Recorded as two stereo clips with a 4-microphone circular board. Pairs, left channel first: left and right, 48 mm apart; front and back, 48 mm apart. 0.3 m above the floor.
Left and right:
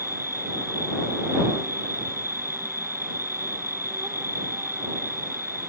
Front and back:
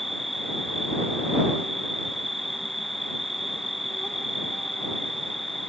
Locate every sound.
0.0 s an insect: 95° right